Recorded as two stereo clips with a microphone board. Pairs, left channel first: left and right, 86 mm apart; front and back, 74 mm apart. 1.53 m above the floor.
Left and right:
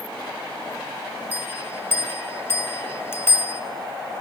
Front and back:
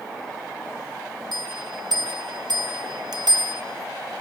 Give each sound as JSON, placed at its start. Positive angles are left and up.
{"t": 1.3, "sound": "a bell", "azimuth_deg": 155, "distance_m": 1.8}